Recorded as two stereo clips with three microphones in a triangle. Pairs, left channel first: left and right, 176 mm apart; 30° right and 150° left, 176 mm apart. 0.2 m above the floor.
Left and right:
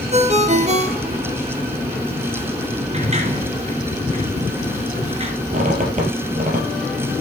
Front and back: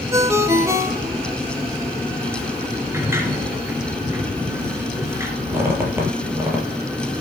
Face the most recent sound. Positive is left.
turn(degrees=-135)